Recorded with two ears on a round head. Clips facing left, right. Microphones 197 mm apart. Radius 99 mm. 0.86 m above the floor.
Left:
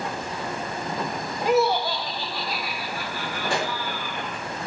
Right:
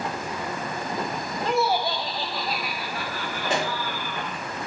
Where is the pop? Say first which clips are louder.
Right 1 dB; 20° right (ahead or behind), 1.7 m.